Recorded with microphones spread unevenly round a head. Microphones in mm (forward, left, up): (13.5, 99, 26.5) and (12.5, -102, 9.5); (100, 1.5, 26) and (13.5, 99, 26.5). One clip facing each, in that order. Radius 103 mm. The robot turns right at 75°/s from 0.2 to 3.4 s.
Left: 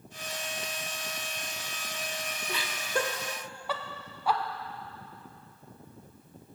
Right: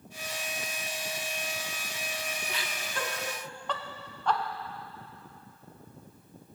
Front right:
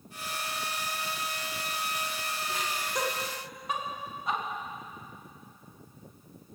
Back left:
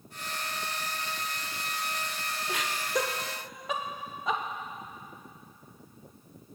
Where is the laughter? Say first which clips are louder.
Left 5 dB, back left 4 dB; 105° left, 1.0 m; by 4.4 s 175° left, 1.0 m.